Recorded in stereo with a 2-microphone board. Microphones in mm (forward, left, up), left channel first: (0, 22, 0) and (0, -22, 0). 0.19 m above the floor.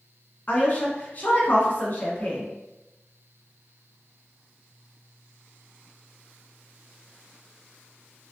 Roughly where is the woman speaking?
Left.